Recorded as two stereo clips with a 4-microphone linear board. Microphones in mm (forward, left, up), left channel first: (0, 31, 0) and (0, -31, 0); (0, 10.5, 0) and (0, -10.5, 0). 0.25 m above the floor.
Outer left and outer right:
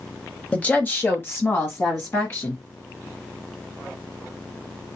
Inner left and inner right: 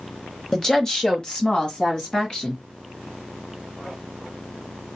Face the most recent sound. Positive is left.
turn(degrees=45)  # may be behind; listen again after turning